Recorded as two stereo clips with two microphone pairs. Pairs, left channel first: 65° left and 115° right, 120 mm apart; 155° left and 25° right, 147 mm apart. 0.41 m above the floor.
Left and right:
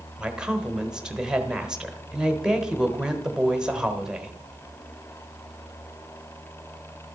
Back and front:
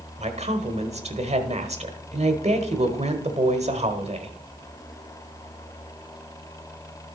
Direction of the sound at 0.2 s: 30° right.